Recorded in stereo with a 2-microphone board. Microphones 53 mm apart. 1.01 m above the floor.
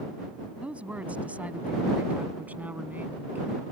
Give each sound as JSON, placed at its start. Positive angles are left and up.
{"t": 0.6, "sound": "a woman speaking", "side_deg": -25}